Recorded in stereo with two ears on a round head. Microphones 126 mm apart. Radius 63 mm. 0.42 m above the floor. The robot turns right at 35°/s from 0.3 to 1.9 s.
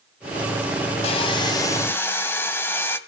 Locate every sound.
1.0 s sawing: 135° left, 1.5 m; by 3.0 s 165° left, 1.5 m